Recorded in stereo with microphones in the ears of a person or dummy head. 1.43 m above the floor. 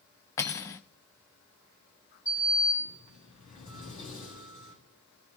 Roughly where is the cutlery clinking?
Centre.